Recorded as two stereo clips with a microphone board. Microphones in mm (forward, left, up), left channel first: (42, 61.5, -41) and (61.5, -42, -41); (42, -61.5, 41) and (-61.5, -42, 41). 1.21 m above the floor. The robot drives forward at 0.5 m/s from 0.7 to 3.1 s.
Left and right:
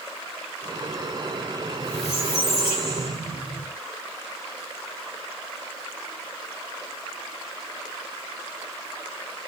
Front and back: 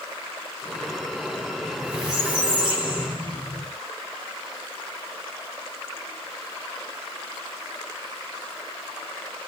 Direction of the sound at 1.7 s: 85° left.